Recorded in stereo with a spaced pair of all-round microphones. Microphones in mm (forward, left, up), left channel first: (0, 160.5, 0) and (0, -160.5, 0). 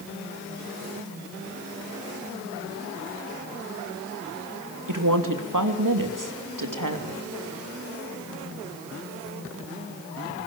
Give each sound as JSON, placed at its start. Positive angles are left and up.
{"t": 4.9, "sound": "a woman speaking", "side_deg": -75, "distance_m": 3.0}